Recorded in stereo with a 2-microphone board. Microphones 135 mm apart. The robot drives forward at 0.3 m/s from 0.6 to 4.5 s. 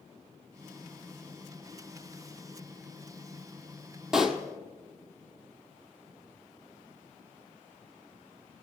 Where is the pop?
5° right (ahead or behind), 0.9 m.